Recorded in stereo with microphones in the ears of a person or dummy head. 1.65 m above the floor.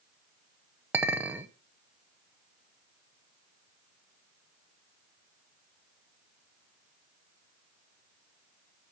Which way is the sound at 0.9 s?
10° right (ahead or behind).